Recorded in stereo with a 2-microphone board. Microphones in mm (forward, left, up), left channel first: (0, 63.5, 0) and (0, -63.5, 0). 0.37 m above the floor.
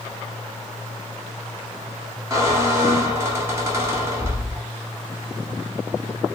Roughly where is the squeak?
Right.